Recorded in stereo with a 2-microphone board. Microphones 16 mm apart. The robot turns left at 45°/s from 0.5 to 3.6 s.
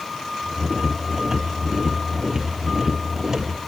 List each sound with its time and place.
Only background noise.